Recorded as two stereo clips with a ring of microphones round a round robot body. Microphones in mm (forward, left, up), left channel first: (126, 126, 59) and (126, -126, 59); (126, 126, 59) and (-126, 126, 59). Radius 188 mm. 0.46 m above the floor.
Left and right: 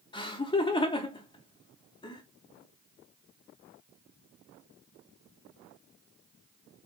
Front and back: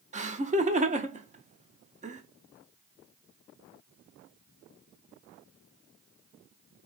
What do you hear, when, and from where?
0.1 s laughter: 145° left, 0.8 m